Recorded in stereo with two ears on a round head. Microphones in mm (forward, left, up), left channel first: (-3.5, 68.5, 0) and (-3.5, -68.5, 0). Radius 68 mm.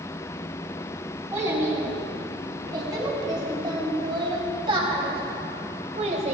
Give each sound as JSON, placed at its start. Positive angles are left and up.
{"t": 1.3, "sound": "a child speaking", "side_deg": -20, "distance_m": 4.0}